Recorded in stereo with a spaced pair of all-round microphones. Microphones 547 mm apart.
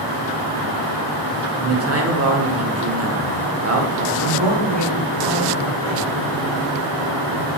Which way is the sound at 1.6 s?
30° right (ahead or behind).